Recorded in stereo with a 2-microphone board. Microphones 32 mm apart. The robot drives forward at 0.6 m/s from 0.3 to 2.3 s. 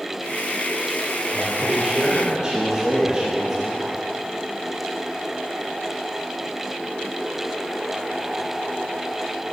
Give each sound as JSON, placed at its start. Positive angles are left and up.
{"t": 1.3, "sound": "a man speaking", "side_deg": -25, "distance_m": 3.5}